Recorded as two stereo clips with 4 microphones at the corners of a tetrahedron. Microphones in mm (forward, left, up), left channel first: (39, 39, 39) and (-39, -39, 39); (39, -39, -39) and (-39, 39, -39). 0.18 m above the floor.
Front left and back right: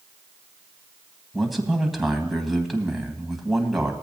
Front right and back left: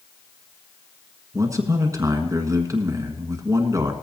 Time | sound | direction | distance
1.3 | a man speaking | 140° left | 1.4 m